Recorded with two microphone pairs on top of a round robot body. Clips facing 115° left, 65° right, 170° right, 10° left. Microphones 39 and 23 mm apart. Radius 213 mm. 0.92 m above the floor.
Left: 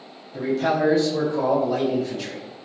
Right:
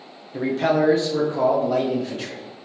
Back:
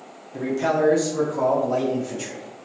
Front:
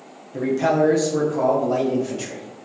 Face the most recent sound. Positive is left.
turn(degrees=-35)